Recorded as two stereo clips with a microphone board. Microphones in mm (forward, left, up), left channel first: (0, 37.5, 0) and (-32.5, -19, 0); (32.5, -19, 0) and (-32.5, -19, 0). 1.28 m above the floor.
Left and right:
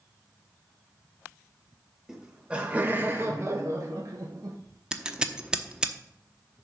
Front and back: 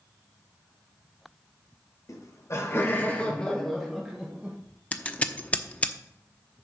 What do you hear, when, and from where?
2.1 s laughter: 40° right, 1.4 m; by 4.6 s 105° right, 1.4 m
4.9 s scissors: 50° right, 0.9 m